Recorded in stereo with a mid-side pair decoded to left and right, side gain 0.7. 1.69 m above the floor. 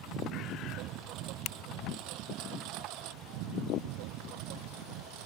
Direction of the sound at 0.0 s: 55° right.